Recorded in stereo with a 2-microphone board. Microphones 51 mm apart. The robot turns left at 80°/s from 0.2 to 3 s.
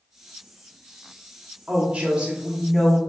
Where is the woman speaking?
30° right (ahead or behind), 1.0 m; by 3.0 s 10° left (ahead or behind), 1.0 m.